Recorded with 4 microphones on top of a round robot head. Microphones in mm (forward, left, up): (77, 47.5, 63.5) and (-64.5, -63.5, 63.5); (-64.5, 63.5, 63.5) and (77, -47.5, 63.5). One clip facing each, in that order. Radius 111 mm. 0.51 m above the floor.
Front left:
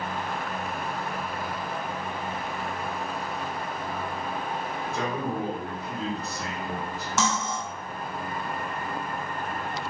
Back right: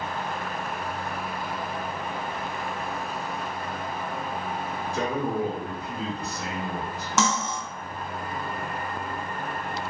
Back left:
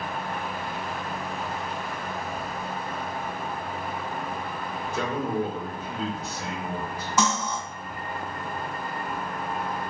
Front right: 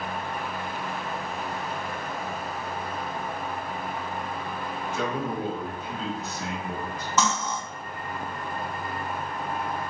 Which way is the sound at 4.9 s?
160° left.